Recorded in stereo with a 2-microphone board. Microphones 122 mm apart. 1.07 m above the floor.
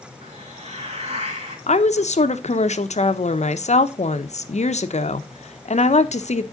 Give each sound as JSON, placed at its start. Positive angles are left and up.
{"t": 0.2, "sound": "a hiss", "side_deg": -55, "distance_m": 3.5}
{"t": 1.7, "sound": "a woman speaking", "side_deg": 65, "distance_m": 0.8}